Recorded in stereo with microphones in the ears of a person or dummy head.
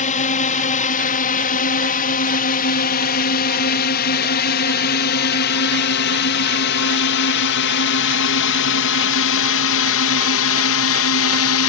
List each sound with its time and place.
0.0 s a drone: 35° left (ahead or behind); by 11.7 s 65° left (ahead or behind)